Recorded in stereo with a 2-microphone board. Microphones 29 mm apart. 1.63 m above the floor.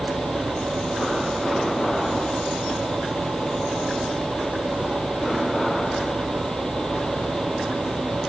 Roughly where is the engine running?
Right.